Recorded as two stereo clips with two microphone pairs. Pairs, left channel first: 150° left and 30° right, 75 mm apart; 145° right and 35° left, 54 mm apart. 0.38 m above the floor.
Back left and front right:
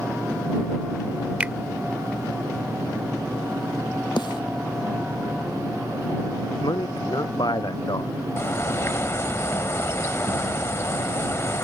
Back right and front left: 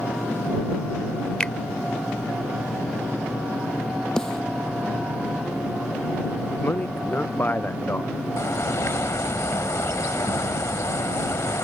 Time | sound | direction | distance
1.4 | a finger snap | 85° right | ?
4.2 | a snare drum | 135° left | ?
6.6 | a man speaking | 160° left | ?
8.4 | a bird | 165° right | ?